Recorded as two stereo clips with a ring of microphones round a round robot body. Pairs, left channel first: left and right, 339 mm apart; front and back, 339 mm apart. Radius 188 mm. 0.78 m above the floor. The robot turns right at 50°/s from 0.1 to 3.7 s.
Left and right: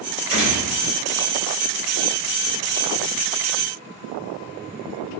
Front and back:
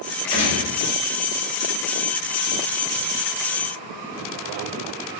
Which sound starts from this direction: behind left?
A gunshot, at 0.3 s.